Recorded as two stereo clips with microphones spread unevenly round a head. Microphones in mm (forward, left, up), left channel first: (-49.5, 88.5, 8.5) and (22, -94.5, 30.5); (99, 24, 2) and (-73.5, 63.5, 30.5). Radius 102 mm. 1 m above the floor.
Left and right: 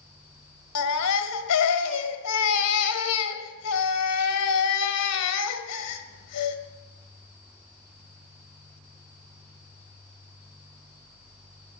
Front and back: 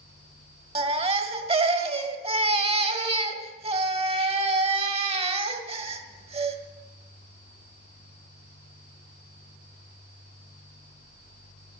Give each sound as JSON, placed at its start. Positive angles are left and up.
{"t": 0.8, "sound": "a baby crying", "azimuth_deg": 115, "distance_m": 1.6}